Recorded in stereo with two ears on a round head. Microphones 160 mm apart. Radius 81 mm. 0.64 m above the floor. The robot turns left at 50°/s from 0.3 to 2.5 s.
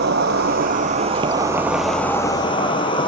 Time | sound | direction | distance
0.0 | an insect | 100° right | 1.4 m